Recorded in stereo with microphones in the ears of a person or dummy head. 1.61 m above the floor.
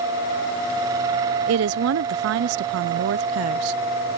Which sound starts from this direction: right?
A woman speaking, at 1.5 s.